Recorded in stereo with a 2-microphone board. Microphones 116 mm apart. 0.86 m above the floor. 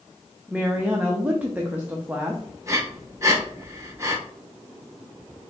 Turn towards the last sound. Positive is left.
turn(degrees=-25)  # may be behind; listen again after turning